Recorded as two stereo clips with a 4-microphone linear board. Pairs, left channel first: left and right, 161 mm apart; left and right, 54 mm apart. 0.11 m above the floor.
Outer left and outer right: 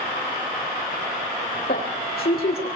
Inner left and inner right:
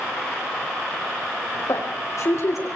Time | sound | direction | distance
1.7 | a woman speaking | 70° left (ahead or behind) | 7 m